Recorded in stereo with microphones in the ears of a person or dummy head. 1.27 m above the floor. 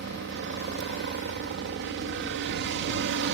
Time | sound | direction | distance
0.0 | a helicopter | 55° right (ahead or behind) | ?